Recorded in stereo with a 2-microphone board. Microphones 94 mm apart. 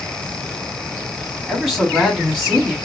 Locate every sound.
1.5 s a man speaking: 5° left (ahead or behind), 3 m